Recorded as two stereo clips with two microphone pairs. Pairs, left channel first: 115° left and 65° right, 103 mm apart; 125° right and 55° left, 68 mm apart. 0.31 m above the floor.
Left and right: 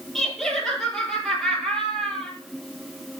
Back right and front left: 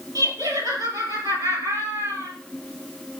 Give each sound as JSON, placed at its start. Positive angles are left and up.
{"t": 0.1, "sound": "laughter", "azimuth_deg": 25, "distance_m": 7.0}